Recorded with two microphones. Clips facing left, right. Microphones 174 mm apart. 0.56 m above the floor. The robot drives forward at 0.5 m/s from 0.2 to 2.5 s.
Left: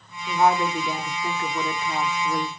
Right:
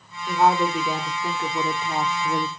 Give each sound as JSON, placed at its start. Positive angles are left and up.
{"t": 0.3, "sound": "a woman speaking", "side_deg": -10, "distance_m": 1.4}